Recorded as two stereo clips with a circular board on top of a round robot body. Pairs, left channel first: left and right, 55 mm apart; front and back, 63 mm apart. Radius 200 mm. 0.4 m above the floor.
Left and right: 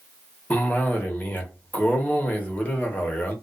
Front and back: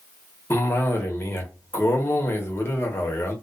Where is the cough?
40° left, 1.1 m.